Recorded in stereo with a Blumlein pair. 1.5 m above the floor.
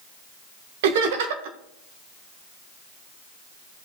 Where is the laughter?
50° right, 1.5 m.